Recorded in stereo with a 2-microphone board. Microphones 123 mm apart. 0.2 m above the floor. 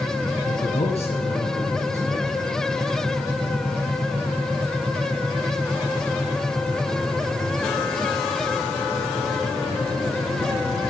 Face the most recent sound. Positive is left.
turn(degrees=60)  # may be behind; listen again after turning